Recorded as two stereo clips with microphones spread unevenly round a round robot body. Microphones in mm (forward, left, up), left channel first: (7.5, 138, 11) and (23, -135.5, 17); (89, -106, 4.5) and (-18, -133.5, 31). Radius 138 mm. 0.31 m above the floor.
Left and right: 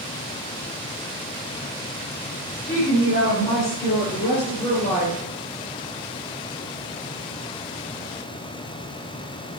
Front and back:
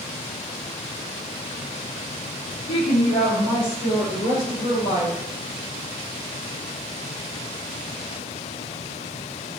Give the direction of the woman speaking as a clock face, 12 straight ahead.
11 o'clock.